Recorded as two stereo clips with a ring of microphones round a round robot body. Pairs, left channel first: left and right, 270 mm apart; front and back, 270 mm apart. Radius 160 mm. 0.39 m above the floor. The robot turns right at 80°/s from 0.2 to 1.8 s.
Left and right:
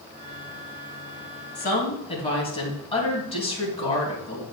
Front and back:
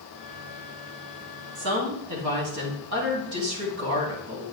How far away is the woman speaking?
About 3 m.